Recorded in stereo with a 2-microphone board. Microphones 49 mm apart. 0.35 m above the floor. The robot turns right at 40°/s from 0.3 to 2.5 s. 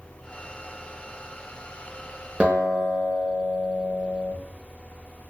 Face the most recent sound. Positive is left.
turn(degrees=-25)  # may be behind; listen again after turning